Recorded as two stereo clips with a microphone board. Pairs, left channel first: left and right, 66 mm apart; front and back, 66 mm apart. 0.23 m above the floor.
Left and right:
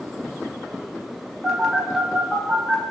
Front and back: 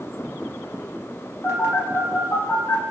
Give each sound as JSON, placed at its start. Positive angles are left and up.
{"t": 1.4, "sound": "a phone buzzing", "azimuth_deg": -10, "distance_m": 0.7}